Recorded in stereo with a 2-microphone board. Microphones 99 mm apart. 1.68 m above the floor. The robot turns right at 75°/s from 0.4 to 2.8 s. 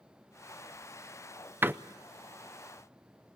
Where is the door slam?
20° right (ahead or behind), 0.5 m.